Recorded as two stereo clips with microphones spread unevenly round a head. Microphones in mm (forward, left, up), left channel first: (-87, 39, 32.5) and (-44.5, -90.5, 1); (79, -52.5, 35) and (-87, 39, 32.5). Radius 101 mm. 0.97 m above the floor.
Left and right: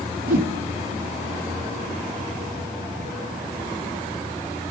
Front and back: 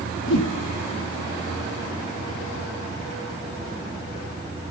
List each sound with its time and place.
0.3 s a whoosh: 55° right, 1.7 m